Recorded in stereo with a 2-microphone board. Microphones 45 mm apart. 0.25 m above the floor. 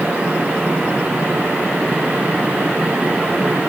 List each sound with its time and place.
Only background noise.